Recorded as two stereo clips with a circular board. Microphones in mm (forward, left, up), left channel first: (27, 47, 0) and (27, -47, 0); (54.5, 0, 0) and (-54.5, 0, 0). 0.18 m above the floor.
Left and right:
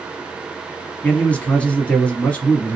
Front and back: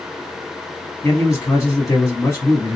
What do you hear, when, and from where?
1.0 s a man speaking: 25° left, 1.1 m